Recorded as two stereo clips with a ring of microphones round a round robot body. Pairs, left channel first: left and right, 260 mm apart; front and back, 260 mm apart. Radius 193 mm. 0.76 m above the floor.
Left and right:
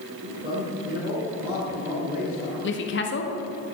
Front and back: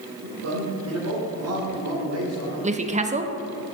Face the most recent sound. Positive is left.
turn(degrees=120)